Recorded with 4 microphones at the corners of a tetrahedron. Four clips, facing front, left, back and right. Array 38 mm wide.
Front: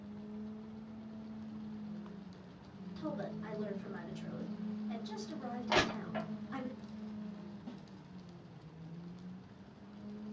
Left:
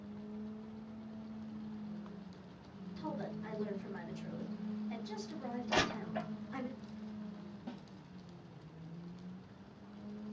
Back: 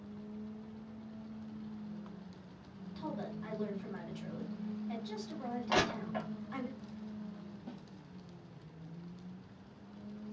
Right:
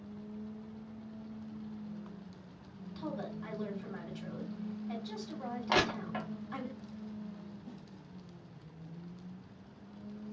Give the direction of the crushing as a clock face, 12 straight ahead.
3 o'clock.